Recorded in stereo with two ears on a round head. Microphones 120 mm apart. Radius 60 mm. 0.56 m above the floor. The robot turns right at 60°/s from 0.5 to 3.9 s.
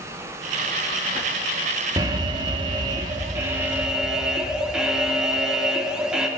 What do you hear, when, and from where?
2.0 s an alarm: 125° right, 0.8 m; by 6.3 s 10° right, 0.8 m